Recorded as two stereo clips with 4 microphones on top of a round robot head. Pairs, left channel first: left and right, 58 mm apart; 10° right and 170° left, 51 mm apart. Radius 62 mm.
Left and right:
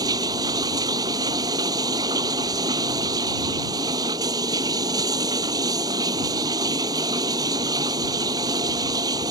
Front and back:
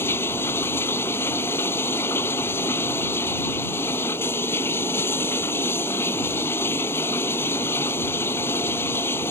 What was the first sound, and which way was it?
Running water, 65° right.